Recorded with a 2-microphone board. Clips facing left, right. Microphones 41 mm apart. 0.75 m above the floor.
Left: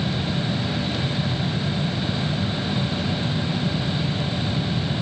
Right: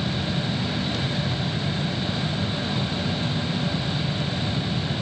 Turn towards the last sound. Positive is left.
No sound to turn to.